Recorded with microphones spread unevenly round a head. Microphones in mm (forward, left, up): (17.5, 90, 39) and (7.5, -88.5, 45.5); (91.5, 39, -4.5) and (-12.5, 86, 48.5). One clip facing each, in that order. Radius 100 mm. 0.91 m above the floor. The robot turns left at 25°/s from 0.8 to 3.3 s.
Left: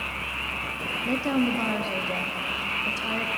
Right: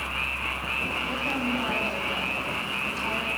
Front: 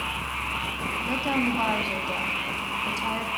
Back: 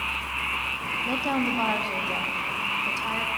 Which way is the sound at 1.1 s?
75° left.